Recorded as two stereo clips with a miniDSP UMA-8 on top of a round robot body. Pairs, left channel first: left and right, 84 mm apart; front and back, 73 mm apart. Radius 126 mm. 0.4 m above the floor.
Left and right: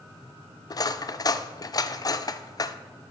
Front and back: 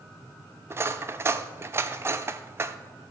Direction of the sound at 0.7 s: 130° left.